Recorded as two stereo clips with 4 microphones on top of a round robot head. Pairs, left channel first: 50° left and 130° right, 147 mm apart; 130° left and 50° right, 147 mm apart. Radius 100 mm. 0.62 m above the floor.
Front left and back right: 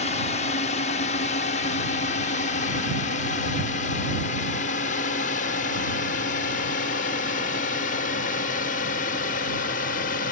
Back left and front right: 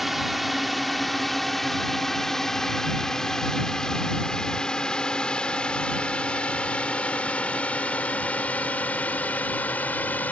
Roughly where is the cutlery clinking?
I don't hear cutlery clinking.